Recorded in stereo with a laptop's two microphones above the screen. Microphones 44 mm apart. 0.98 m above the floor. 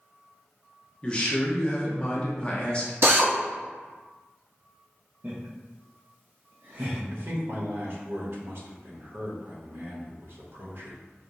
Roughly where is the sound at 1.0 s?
Left.